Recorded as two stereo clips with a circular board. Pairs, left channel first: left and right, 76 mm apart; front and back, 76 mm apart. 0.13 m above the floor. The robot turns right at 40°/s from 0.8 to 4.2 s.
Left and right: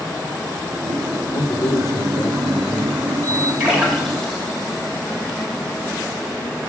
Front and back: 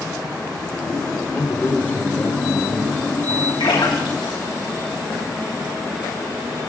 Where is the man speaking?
50° left, 3.5 m; by 3.5 s 135° left, 3.5 m.